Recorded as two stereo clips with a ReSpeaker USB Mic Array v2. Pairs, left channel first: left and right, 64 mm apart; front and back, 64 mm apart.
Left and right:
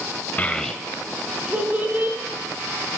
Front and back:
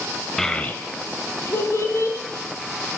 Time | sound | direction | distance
0.4 | a child speaking | 75° left | 0.6 m